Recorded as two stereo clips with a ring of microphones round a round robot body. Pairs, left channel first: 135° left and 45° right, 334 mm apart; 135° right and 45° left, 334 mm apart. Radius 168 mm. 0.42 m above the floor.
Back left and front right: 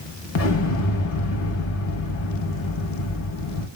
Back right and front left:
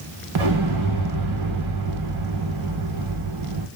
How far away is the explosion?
About 0.5 m.